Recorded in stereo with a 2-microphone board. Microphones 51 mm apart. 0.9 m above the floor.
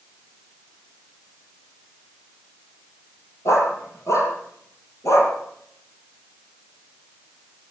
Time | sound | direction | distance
3.5 | a dog barking | 85° left | 8.5 m